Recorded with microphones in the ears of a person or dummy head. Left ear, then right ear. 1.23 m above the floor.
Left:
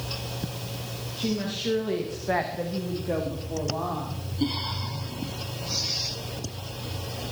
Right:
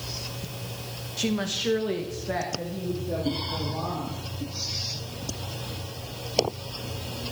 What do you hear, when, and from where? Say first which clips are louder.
1.2 s a woman speaking: right 3 dB; 50° right (ahead or behind), 1.5 m; by 4.2 s 70° left (ahead or behind), 3.5 m